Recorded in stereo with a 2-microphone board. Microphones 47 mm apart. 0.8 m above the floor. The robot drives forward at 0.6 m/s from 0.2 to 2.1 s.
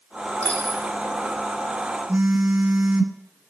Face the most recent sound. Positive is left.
turn(degrees=-35)  # may be behind; listen again after turning